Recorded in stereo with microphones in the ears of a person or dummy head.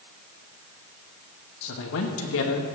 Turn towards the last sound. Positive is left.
turn(degrees=75)  # may be behind; listen again after turning